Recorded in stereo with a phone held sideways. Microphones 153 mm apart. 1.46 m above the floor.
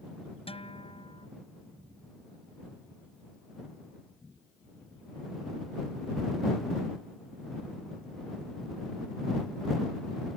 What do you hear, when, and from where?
0.5 s a guitar: 40° left (ahead or behind)